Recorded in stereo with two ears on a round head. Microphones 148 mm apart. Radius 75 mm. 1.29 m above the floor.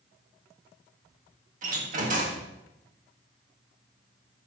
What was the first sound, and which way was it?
A door slam, 50° right (ahead or behind).